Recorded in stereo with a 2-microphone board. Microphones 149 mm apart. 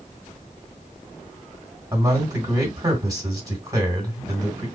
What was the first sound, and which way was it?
A man speaking, 25° right (ahead or behind).